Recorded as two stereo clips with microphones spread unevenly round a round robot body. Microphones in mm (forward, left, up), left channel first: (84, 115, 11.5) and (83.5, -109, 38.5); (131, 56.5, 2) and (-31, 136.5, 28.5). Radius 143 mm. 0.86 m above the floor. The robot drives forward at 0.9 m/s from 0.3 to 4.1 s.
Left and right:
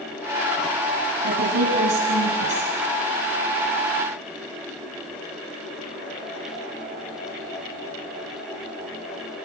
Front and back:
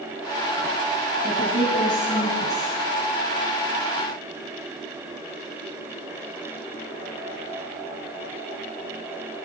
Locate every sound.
1.2 s a woman speaking: 95° right, 8.5 m; by 2.7 s 105° right, 9 m